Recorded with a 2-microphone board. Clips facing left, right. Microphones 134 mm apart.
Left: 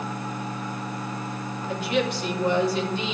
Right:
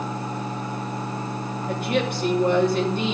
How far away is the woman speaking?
About 2.5 m.